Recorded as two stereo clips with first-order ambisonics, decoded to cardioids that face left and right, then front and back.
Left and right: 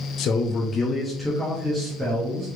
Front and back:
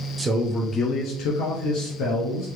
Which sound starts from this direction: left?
A man speaking, at 0.2 s.